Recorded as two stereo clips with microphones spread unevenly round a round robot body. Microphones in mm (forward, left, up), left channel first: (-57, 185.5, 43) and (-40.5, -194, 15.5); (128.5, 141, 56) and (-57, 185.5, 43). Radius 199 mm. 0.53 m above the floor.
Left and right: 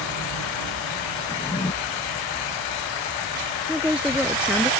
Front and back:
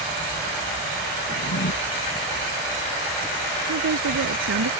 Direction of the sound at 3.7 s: 175° right.